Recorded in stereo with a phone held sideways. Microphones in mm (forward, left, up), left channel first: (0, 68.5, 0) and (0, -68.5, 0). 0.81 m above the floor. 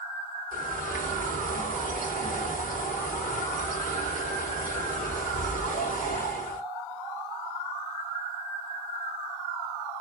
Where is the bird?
90° left, 1.7 m.